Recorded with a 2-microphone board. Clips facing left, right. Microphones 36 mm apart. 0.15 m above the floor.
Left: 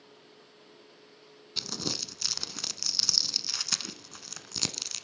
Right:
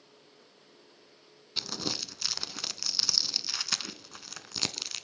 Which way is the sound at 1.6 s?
10° right (ahead or behind).